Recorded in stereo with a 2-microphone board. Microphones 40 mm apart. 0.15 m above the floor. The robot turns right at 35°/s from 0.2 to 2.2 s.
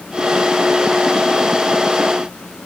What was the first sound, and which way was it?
Only background noise.